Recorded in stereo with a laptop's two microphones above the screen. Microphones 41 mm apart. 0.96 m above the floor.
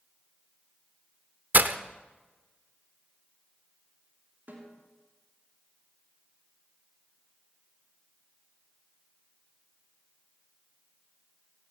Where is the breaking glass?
45° right (ahead or behind), 0.8 m.